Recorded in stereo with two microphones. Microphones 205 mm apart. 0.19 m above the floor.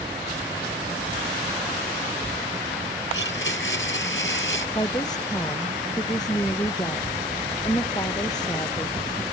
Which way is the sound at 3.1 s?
70° left (ahead or behind).